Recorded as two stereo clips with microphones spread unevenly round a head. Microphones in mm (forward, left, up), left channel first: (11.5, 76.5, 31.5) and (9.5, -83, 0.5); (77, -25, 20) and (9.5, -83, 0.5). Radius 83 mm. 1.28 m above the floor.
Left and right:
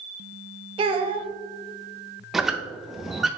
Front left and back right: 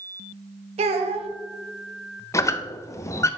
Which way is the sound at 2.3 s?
5° left.